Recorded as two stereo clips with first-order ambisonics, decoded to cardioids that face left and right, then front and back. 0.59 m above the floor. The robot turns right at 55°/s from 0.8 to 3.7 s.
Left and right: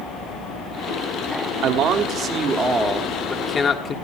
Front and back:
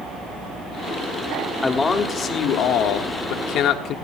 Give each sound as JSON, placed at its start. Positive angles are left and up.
{"t": 1.6, "sound": "a man speaking", "azimuth_deg": -80, "distance_m": 1.6}